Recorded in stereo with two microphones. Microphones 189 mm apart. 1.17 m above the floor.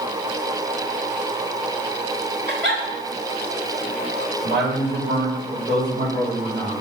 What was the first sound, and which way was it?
A giggle, 65° right (ahead or behind).